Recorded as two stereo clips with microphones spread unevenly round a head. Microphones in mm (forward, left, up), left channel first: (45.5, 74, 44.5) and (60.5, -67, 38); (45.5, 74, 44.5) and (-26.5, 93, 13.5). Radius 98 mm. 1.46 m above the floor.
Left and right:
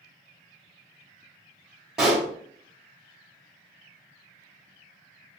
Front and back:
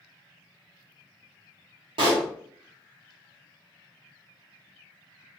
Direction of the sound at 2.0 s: 170° right.